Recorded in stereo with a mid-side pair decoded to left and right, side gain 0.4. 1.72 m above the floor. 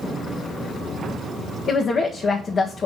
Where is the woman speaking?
55° left, 1.6 m.